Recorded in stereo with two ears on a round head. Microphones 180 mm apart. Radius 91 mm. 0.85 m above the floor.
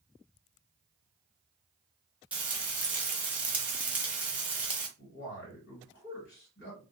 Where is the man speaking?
60° left (ahead or behind), 1.8 m.